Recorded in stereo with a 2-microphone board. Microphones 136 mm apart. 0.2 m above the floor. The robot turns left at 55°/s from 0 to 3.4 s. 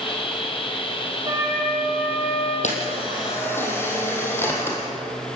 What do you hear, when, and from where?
1.2 s a flute: 145° right, 9.5 m; by 2.5 s 140° left, 9.5 m
2.6 s a camera shutter: 60° left, 5 m; by 4.8 s 15° left, 5 m